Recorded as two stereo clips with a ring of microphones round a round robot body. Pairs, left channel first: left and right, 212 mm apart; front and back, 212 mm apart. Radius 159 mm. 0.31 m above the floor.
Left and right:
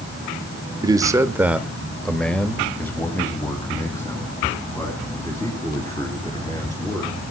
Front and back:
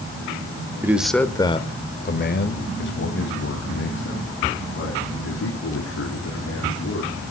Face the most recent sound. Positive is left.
turn(degrees=15)